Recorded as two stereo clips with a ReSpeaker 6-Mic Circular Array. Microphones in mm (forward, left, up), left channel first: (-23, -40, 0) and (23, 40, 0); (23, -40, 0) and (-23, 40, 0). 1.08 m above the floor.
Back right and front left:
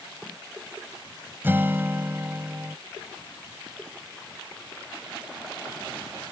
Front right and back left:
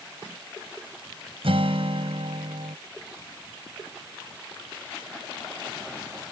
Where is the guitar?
130° left.